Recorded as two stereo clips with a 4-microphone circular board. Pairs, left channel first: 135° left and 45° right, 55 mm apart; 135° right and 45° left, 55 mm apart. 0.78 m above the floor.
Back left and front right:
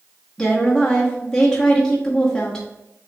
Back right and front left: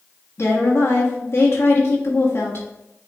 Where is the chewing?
No chewing in this recording.